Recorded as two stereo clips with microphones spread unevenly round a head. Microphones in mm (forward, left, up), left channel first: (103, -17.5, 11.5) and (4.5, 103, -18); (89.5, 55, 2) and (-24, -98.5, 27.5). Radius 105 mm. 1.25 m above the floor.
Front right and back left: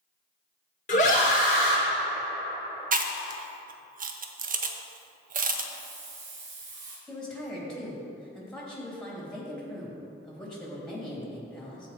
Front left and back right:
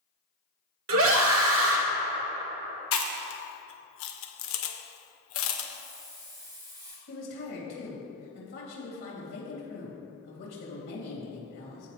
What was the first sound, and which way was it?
A scream, 110° right.